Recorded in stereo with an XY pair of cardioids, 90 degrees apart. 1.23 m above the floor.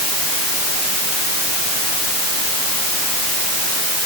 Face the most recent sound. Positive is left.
No sound to turn to.